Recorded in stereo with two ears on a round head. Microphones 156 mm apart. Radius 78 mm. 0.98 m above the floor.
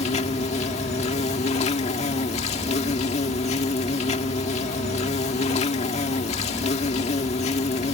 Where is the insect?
40° left (ahead or behind).